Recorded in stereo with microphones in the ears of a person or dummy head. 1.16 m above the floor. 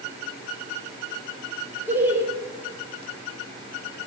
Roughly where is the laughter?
Centre.